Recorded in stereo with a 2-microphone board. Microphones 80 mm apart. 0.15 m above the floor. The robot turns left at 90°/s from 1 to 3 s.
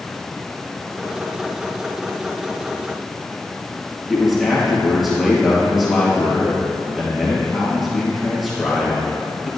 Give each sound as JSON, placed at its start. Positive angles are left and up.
{"t": 4.1, "sound": "a man speaking", "side_deg": -5, "distance_m": 3.5}